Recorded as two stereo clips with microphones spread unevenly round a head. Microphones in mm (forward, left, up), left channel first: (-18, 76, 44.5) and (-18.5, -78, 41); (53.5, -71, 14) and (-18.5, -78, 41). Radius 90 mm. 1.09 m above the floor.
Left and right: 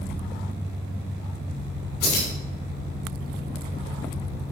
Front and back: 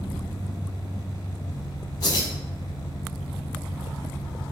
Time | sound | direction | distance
0.0 | an engine running | 20° right | 2.5 m
2.0 | keys jangling | 60° left | 2.5 m